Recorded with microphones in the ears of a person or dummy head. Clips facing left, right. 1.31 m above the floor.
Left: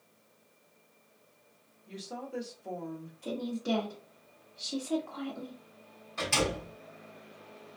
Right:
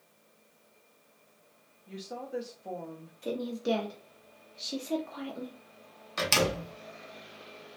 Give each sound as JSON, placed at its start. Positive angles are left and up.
{"t": 1.9, "sound": "a woman speaking", "side_deg": -10, "distance_m": 0.7}
{"t": 3.2, "sound": "a woman speaking", "side_deg": -25, "distance_m": 0.7}
{"t": 6.2, "sound": "a door slam", "side_deg": -70, "distance_m": 0.8}